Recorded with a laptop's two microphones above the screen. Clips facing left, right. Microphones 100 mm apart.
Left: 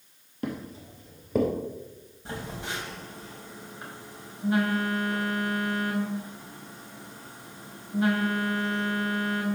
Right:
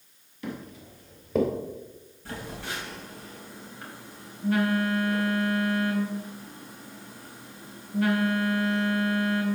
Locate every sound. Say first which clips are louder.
0.4 s footsteps: left 3 dB; 40° left (ahead or behind), 1.3 m; by 1.5 s centre (ahead or behind), 1.3 m
2.2 s a phone buzzing: left 1 dB; 20° left (ahead or behind), 2.5 m